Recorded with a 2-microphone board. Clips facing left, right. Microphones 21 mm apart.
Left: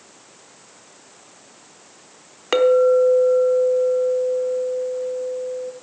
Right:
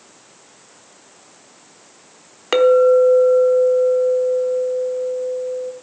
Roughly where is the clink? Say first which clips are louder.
Right 3 dB; centre.